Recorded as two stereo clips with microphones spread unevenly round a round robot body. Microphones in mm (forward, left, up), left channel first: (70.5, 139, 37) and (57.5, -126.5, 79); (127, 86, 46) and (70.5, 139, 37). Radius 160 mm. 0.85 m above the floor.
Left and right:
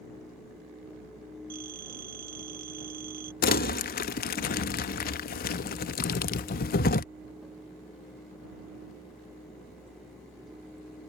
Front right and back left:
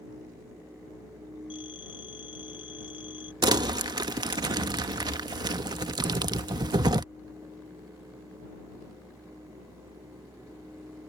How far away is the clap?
No clap in this recording.